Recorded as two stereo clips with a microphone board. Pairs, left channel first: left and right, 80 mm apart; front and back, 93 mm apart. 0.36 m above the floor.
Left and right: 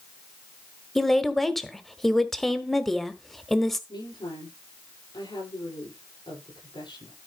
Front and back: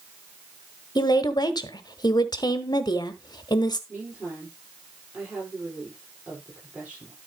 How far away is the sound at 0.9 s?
About 1.2 m.